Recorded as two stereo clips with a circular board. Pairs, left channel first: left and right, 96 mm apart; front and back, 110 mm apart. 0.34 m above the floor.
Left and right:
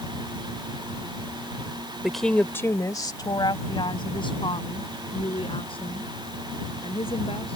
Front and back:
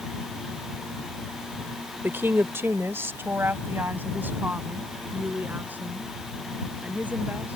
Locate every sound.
2.0 s a woman speaking: 165° right; by 7.6 s 105° left